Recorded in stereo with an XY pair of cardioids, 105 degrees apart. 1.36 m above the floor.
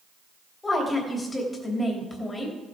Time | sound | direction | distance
0.6 | a woman speaking | 25° left | 3 m